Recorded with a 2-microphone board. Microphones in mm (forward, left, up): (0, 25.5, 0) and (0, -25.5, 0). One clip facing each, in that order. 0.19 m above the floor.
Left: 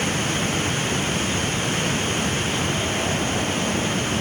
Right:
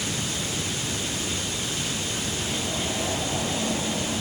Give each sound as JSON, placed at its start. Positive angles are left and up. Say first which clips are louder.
{"t": 0.0, "sound": "running water", "louder": "left 7 dB", "side_deg": 45}